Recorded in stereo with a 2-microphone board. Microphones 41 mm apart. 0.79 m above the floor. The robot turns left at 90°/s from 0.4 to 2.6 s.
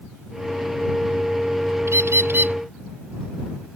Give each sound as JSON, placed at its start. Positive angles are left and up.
{"t": 1.9, "sound": "a bird", "azimuth_deg": -80}